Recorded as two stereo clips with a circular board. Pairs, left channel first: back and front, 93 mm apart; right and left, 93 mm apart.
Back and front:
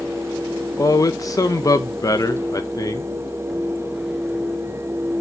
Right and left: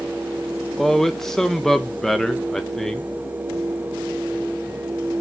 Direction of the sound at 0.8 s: 175° right.